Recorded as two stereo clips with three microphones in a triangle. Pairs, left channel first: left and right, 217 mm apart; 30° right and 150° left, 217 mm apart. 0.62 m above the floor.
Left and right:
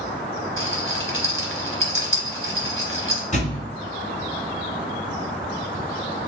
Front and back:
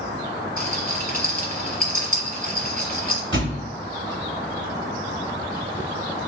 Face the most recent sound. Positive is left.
turn(degrees=140)